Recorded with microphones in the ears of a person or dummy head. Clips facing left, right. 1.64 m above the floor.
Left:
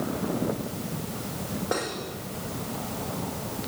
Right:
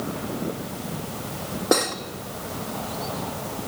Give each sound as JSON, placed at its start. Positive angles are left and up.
{"t": 1.7, "sound": "cutlery clinking", "side_deg": -60, "distance_m": 1.9}